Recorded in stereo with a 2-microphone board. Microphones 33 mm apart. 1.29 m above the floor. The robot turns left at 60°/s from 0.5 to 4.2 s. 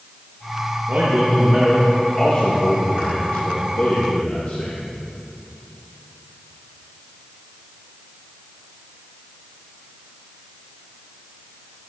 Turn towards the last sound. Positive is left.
turn(degrees=50)